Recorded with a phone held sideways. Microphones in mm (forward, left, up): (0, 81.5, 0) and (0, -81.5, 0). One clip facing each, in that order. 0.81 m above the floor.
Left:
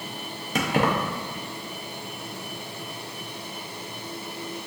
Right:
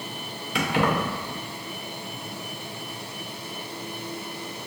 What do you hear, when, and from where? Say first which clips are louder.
0.6 s keys jangling: left 1 dB; 45° left (ahead or behind), 0.6 m